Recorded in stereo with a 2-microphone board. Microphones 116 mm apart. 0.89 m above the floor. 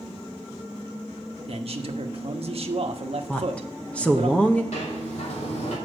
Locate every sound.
1.5 s a man speaking: 60° right (ahead or behind), 1.0 m
3.3 s a woman speaking: 10° left (ahead or behind), 0.7 m
4.7 s a sliding door: 75° left (ahead or behind), 2.5 m